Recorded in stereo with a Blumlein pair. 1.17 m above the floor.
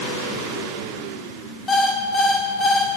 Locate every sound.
1.7 s an alarm clock: 10° left, 1.8 m